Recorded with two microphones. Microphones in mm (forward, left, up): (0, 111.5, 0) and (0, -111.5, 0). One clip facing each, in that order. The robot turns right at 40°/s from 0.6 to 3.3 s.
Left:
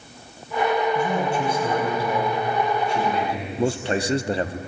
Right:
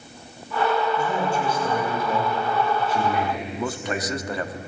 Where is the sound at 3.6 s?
30° left (ahead or behind), 0.6 m.